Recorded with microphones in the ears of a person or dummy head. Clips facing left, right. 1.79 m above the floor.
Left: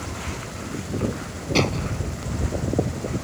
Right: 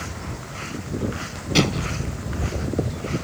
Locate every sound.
1.6 s an explosion: 15° right (ahead or behind)